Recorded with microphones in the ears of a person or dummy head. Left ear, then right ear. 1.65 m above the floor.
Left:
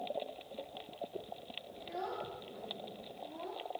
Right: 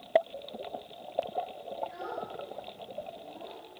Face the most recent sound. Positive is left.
turn(degrees=70)  # may be behind; listen again after turning